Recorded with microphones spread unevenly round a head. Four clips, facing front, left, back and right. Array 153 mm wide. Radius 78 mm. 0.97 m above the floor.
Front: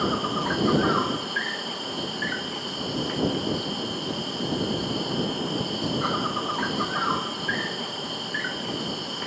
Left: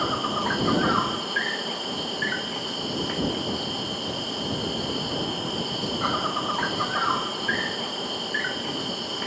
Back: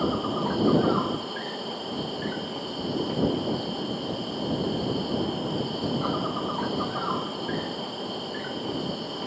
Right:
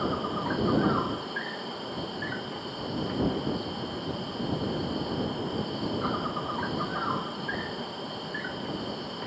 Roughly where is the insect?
Behind left.